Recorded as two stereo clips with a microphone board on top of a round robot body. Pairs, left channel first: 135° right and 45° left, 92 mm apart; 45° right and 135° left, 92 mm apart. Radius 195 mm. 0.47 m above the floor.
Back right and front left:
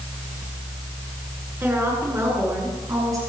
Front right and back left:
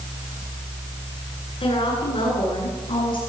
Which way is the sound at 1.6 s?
25° right.